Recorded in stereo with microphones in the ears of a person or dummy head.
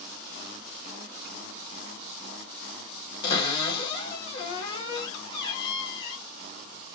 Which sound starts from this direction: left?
A cupboard door, at 3.2 s.